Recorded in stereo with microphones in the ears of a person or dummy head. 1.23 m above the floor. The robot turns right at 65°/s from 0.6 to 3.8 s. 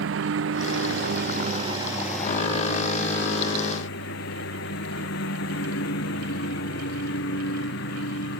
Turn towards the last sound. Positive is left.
turn(degrees=105)